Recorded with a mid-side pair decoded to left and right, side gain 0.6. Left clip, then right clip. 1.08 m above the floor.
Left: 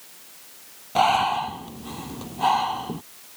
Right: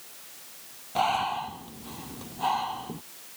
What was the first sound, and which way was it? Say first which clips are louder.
Breathing: left 6 dB; 30° left.